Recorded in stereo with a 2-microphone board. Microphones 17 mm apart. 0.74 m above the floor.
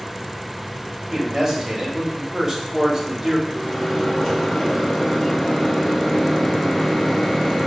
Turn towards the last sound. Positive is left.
turn(degrees=15)  # may be behind; listen again after turning